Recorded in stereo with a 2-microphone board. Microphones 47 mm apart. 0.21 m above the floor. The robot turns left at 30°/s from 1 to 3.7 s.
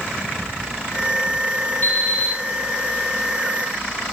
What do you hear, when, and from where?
1.8 s an alarm clock: 45° left (ahead or behind), 1.2 m; by 2.4 s 35° left (ahead or behind), 1.2 m